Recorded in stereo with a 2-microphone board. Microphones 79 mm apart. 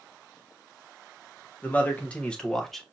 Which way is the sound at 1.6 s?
25° left (ahead or behind).